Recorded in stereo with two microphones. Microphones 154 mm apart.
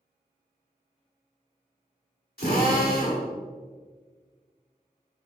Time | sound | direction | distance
2.4 | a drill | 75° left (ahead or behind) | 2.5 m